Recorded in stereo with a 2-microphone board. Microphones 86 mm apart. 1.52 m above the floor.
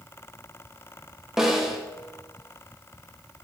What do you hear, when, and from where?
1.4 s a snare drum: 5° right (ahead or behind), 1.0 m